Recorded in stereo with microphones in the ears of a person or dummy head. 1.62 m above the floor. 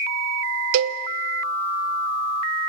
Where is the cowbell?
70° right (ahead or behind), 0.9 m.